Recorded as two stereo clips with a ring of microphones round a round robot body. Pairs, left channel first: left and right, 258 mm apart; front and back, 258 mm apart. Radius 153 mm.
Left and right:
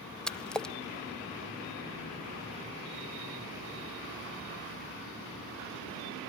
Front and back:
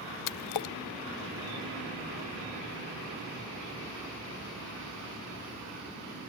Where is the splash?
5° left, 1.0 m.